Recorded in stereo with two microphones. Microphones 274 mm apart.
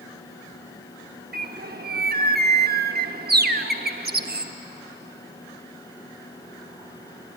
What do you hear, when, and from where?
1.3 s a bird: 35° right (ahead or behind), 0.8 m